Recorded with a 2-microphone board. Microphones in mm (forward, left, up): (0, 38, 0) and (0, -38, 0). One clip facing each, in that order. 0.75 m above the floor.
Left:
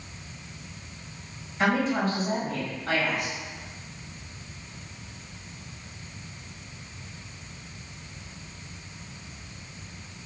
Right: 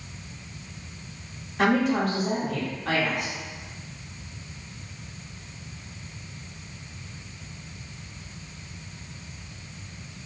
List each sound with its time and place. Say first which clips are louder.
1.6 s a woman speaking: right 2 dB; 70° right (ahead or behind), 2 m